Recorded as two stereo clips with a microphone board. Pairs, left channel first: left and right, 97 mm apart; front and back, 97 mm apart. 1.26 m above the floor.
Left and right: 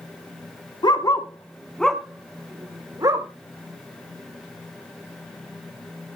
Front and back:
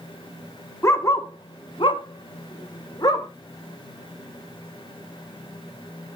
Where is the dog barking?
60° left, 1.5 m; by 3.3 s 45° right, 2 m.